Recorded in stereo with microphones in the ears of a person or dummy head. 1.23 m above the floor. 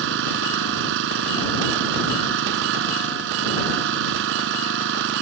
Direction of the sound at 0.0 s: 65° right (ahead or behind).